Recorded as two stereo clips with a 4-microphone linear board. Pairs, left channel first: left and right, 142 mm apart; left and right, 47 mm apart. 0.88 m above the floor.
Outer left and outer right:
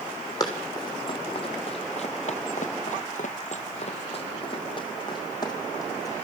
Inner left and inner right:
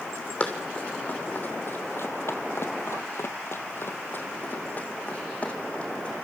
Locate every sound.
0.4 s running footsteps: 30° left (ahead or behind), 3 m; by 6.2 s 25° left (ahead or behind), 4 m